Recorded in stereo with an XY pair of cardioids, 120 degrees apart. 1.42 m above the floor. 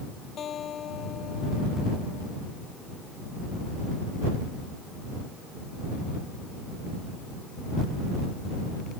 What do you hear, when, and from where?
0.4 s a guitar: 50° left